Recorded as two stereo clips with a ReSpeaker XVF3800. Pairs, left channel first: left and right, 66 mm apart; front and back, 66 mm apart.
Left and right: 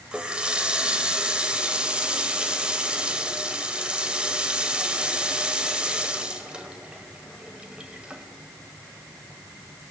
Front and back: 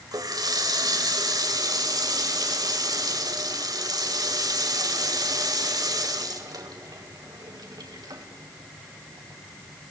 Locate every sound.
0.1 s a running tap: 165° right, 2.0 m